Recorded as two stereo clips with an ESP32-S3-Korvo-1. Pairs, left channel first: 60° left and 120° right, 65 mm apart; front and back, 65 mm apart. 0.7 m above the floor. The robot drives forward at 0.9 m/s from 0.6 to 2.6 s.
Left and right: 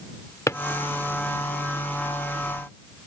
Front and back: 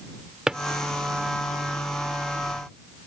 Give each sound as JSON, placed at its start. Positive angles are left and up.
{"t": 0.5, "sound": "a drawer", "azimuth_deg": 100}